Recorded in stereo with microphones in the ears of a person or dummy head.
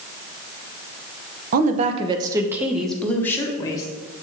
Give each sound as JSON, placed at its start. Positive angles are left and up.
{"t": 1.5, "sound": "a woman speaking", "side_deg": -50, "distance_m": 0.8}